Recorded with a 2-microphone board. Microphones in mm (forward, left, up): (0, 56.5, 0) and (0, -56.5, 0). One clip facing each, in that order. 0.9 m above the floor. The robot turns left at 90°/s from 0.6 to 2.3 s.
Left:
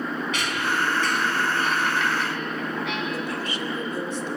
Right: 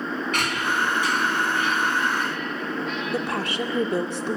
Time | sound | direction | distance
0.3 | a squeak | 50° right (ahead or behind) | 4 m
3.1 | a woman speaking | 60° right (ahead or behind) | 1.9 m